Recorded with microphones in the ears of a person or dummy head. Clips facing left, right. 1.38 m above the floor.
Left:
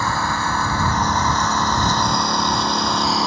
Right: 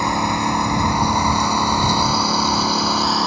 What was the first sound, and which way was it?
A lawn mower, 15° right (ahead or behind).